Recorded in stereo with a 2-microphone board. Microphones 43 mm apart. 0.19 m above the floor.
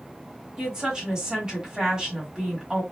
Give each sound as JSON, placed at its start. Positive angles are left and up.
{"t": 0.6, "sound": "a woman speaking", "side_deg": -20, "distance_m": 1.5}